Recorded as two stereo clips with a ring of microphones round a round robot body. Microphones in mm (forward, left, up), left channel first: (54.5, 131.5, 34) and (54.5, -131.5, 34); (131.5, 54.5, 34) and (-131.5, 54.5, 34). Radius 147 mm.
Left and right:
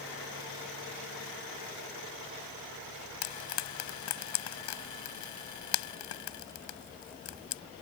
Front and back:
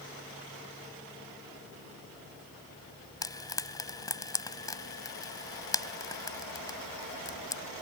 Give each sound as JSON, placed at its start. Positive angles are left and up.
{"t": 3.2, "sound": "frying", "azimuth_deg": 75}